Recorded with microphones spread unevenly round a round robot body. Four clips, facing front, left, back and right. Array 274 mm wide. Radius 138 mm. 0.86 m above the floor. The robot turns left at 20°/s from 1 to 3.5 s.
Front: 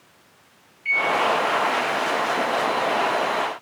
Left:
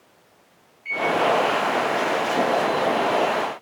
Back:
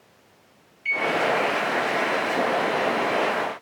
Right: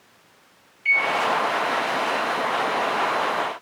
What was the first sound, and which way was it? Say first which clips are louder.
A microwave: left 1 dB, front 2 dB; 150° right.